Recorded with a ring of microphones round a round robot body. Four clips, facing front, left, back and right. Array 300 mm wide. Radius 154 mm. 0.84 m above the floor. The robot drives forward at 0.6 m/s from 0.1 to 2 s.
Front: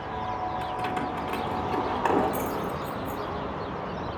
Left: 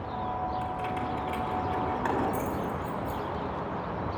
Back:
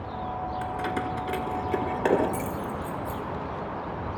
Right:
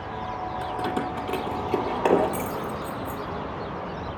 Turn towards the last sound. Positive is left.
turn(degrees=-125)